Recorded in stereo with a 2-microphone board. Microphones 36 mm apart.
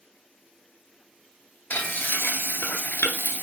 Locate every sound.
1.7 s frying: 75° left (ahead or behind), 0.7 m